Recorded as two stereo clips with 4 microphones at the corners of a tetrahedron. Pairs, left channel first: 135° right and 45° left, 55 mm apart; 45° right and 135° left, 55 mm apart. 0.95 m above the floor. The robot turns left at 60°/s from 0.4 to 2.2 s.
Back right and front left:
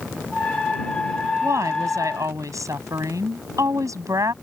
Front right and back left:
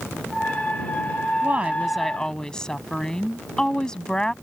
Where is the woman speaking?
80° left; by 4.3 s 35° left.